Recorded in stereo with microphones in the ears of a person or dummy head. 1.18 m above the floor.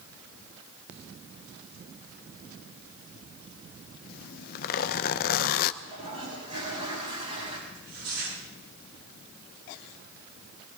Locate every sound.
4.1 s a zipper: 50° left (ahead or behind), 0.6 m
5.8 s a toilet flushing: 35° right (ahead or behind), 6.5 m
7.7 s tearing paper: 75° right (ahead or behind), 8 m